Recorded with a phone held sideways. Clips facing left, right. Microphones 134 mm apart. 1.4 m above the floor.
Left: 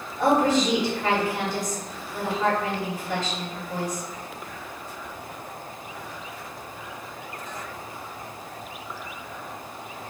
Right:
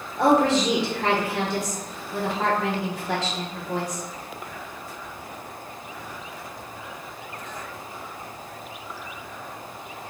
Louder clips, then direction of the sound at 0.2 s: Right 1 dB; 70° right (ahead or behind).